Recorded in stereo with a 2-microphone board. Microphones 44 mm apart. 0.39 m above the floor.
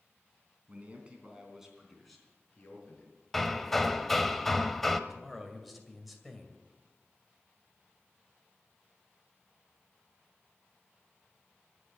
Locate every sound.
0.7 s a man speaking: 35° right (ahead or behind), 3.5 m; by 3.1 s 20° left (ahead or behind), 4.5 m
3.3 s hammering: 5° left (ahead or behind), 0.8 m
5.1 s a man speaking: centre (ahead or behind), 2 m